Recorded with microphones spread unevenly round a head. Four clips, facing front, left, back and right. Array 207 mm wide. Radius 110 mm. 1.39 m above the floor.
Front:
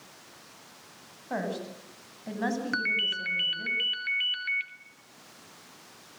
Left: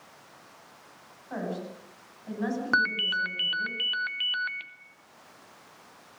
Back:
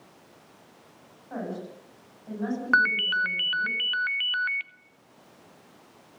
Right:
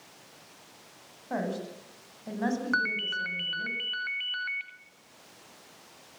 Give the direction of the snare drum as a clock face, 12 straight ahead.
No snare drum in this recording.